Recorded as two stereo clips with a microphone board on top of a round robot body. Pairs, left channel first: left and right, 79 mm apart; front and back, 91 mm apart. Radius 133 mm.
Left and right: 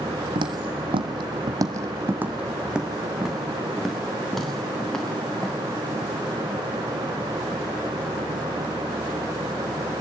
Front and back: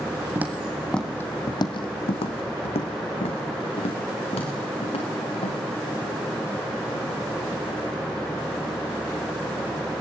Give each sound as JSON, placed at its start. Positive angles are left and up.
{"t": 0.3, "sound": "footsteps", "azimuth_deg": -110, "distance_m": 1.8}